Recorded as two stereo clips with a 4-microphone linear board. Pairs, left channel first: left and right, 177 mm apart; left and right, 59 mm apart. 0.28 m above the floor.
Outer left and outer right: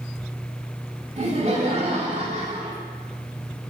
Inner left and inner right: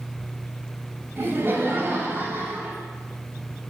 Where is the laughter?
40° right (ahead or behind), 1.6 m; by 2.8 s 35° right (ahead or behind), 1.7 m.